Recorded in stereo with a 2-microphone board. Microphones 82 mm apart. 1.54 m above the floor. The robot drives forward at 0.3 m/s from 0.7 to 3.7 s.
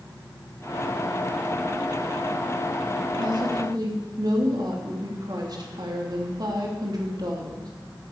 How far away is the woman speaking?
About 3 m.